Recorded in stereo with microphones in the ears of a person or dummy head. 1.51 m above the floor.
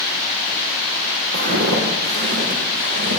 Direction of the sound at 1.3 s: 55° right (ahead or behind).